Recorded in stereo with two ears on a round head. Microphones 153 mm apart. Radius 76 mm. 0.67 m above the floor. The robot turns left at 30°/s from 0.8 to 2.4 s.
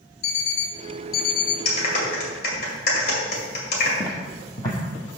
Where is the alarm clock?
65° left (ahead or behind), 0.8 m; by 1.6 s 50° left (ahead or behind), 0.8 m.